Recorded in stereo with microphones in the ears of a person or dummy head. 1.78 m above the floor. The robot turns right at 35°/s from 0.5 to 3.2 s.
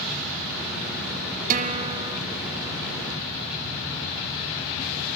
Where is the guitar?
45° right (ahead or behind), 1.7 m; by 2.2 s 25° right (ahead or behind), 1.7 m.